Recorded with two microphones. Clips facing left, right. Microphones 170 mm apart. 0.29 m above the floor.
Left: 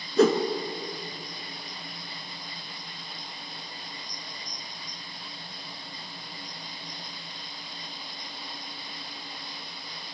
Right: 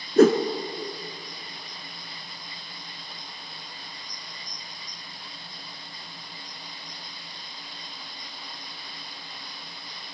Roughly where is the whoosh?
Right.